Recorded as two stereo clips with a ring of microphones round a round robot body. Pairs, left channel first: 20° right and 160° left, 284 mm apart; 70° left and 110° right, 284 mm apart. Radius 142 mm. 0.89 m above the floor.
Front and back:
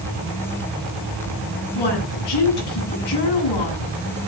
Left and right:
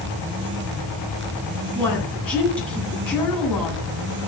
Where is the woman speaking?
20° right, 9 m.